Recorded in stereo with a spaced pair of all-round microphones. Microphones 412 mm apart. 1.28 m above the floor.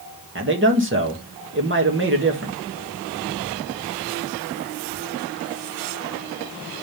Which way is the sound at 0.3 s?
30° right (ahead or behind).